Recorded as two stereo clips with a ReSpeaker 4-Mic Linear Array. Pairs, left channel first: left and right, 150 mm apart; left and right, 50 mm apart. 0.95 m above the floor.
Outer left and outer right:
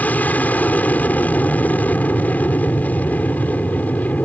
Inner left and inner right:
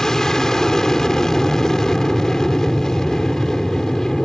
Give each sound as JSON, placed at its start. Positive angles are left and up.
{"t": 0.0, "sound": "an aircraft", "side_deg": 10}